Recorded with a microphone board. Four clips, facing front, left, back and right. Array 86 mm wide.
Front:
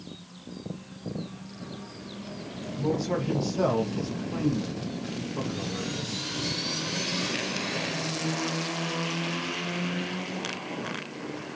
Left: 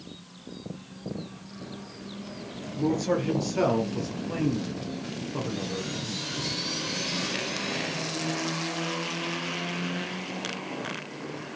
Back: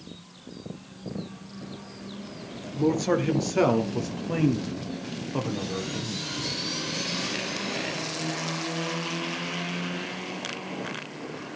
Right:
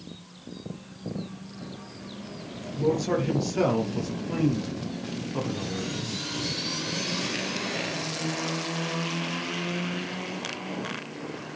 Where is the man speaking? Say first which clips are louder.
Right 1 dB, back 5 dB; straight behind, 5 m.